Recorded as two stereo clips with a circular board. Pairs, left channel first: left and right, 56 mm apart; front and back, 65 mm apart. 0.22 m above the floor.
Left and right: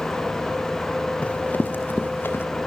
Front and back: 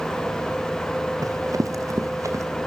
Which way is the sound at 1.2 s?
155° left.